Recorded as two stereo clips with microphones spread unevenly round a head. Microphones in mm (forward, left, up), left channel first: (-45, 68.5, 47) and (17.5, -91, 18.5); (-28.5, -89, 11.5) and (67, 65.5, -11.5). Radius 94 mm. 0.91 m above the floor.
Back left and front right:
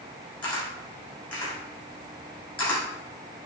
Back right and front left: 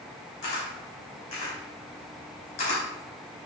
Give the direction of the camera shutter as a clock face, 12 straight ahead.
6 o'clock.